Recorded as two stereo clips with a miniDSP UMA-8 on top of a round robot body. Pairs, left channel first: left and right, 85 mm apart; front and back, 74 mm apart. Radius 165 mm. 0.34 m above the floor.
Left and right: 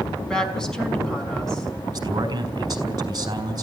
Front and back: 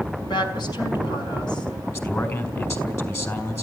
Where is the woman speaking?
10° left, 5 m.